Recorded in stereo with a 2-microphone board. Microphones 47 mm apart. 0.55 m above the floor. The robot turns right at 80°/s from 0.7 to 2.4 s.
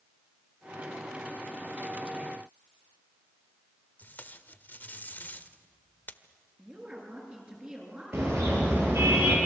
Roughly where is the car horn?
Right.